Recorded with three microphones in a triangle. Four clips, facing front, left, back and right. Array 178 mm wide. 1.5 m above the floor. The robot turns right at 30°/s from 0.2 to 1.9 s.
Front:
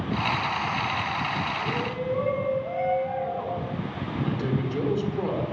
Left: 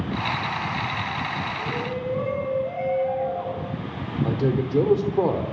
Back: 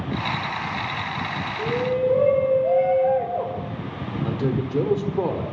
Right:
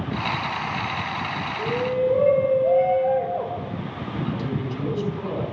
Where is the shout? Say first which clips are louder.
Right 6 dB, back 7 dB; 150° right, 6 m; by 3.6 s 140° right, 6 m.